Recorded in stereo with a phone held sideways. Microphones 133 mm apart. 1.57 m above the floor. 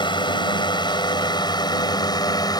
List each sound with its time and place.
0.0 s a drone: 35° left (ahead or behind); by 2.6 s 30° left (ahead or behind)